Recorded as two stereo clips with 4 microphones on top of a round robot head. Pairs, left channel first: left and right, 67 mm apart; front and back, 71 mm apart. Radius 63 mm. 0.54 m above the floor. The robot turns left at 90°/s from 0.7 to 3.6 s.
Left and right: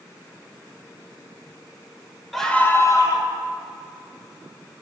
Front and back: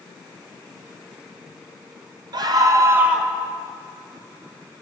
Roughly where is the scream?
Behind.